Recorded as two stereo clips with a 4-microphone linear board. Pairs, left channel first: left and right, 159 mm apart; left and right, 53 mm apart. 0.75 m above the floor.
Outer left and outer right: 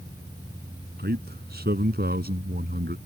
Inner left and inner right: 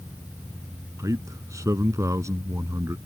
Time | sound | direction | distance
1.0 | a man speaking | 75° right (ahead or behind) | ?